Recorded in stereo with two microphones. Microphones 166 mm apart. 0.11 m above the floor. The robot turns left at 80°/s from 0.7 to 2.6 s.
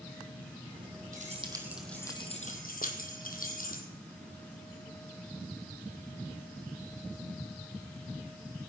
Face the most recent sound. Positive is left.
turn(degrees=55)  # may be behind; listen again after turning